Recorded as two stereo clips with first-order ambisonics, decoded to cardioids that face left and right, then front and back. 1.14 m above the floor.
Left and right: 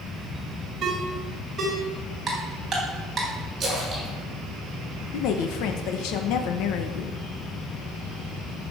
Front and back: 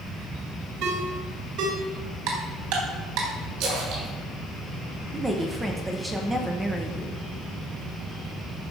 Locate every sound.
0.8 s a ringtone: 150° right, 3 m
2.3 s ticking: 165° right, 3.5 m
3.6 s a splash: 160° right, 6.5 m
5.1 s a woman speaking: 100° left, 1.1 m